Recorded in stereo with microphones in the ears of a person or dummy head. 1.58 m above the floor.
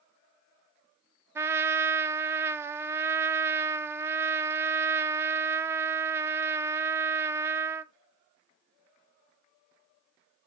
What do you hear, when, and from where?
1.4 s a trumpet: 10° right (ahead or behind), 0.5 m